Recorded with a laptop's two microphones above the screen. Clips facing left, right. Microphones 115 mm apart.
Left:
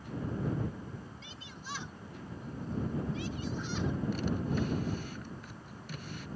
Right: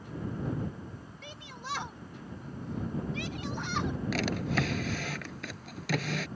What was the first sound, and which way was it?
A shout, 60° right (ahead or behind).